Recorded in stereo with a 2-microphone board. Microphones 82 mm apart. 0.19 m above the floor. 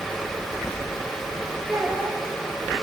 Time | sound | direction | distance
1.7 | a child speaking | 5° right (ahead or behind) | 8.5 m